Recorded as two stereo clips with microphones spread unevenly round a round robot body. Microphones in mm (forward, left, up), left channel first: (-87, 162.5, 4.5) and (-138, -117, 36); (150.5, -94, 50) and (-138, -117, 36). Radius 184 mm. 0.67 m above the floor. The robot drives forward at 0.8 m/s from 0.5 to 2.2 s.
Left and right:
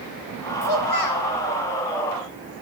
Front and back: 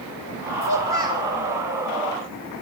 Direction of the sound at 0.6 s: 60° left.